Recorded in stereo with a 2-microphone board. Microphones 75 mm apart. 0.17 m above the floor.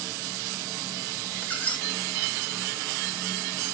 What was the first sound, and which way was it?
A squeak, 20° left (ahead or behind).